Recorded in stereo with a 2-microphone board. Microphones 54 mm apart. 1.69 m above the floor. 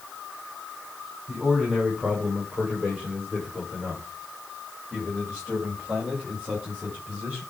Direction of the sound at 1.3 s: 10° right (ahead or behind).